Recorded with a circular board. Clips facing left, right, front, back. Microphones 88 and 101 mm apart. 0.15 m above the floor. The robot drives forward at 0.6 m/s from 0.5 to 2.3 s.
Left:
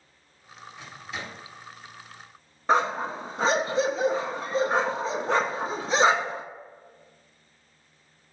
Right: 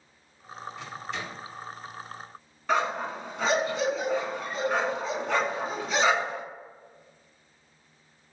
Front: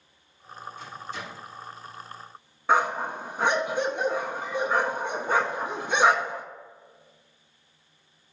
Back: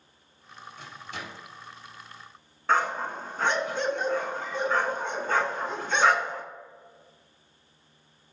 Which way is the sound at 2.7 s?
70° left.